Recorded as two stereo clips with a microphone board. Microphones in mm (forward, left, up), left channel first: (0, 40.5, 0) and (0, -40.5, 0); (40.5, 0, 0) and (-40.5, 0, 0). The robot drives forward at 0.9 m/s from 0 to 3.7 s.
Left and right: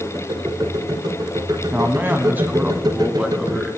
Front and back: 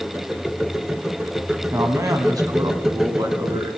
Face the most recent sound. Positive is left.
turn(degrees=-165)